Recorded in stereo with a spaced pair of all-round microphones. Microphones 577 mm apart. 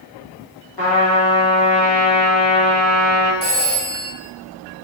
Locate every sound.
0.8 s a trumpet: 40° left (ahead or behind), 1.1 m
3.4 s a phone ringing: 40° left (ahead or behind), 1.2 m